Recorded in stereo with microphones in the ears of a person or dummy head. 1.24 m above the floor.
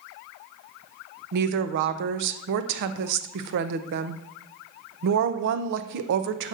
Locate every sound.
1.3 s a woman speaking: 60° right (ahead or behind), 0.6 m